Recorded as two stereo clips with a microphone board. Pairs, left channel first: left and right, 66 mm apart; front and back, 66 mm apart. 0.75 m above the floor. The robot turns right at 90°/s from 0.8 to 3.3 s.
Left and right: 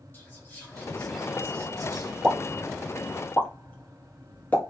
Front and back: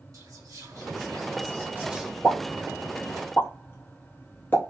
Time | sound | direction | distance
0.1 | whispering | 150° left | 1.0 m
2.2 | a pop | 60° right | 1.1 m